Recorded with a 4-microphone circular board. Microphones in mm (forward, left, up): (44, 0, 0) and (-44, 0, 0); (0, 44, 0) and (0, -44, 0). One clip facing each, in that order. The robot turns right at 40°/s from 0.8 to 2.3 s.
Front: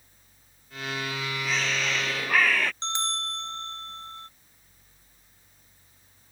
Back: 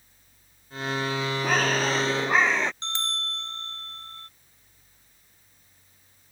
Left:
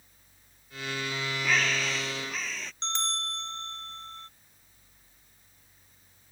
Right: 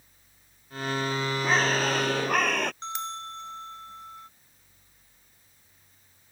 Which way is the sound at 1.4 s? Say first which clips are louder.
Back 6 dB, right 4 dB; 145° right.